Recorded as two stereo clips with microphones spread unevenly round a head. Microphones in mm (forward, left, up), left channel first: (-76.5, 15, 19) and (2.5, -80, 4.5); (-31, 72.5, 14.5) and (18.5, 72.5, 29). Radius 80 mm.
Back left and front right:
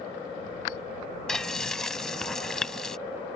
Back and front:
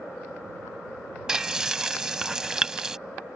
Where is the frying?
50° left.